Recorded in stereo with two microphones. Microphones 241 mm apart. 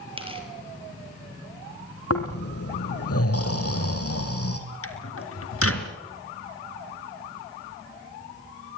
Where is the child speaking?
No child speaking in this recording.